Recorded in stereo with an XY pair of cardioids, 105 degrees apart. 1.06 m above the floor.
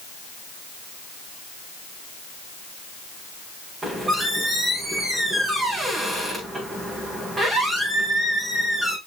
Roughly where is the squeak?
Ahead.